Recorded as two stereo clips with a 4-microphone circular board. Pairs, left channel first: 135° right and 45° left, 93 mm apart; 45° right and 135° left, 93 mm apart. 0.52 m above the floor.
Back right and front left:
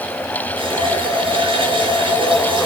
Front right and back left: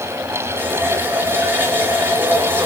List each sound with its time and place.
0.6 s a running tap: 65° left, 6 m